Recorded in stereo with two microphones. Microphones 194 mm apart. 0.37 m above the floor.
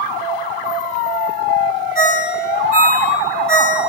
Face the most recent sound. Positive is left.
turn(degrees=50)  # may be behind; listen again after turning